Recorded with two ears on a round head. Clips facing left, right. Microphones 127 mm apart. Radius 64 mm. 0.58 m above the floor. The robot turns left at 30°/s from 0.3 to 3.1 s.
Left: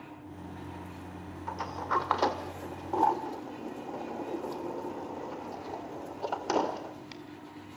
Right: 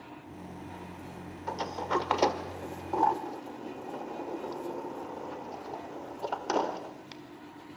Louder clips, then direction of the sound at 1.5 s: Right 2 dB; 40° right (ahead or behind).